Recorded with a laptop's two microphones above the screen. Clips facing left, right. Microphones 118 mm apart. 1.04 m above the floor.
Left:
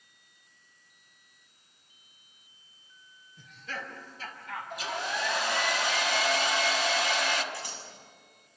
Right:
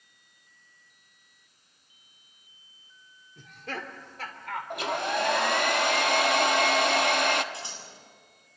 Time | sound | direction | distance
3.4 | laughter | 60° right (ahead or behind) | 2.5 m
4.7 | a hair dryer | 60° right (ahead or behind) | 1.2 m
7.5 | scissors | 25° right (ahead or behind) | 7 m